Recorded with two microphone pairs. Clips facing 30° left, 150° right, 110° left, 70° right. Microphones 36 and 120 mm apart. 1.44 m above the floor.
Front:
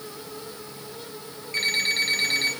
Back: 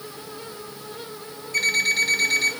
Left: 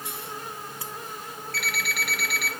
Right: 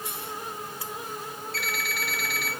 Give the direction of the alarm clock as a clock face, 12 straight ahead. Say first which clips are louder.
Back 4 dB, left 2 dB; 9 o'clock.